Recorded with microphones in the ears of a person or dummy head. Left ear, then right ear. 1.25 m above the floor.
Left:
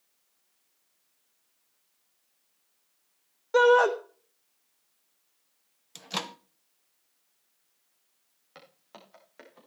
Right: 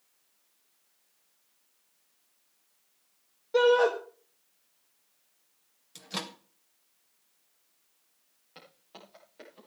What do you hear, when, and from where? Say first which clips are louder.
3.5 s a shout: left 3 dB; 50° left (ahead or behind), 1.0 m
6.0 s a microwave: left 3 dB; 30° left (ahead or behind), 0.6 m
8.6 s footsteps: even; 60° left (ahead or behind), 7.5 m